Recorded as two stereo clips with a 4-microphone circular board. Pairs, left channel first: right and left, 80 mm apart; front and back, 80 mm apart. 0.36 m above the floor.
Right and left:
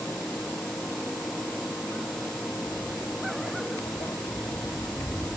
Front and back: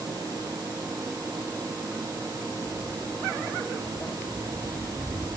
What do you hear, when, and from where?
2.6 s footsteps: 60° right, 4 m; by 5.4 s 65° right, 6 m